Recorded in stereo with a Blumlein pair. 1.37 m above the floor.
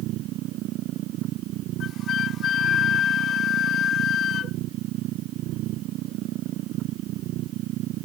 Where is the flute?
30° left.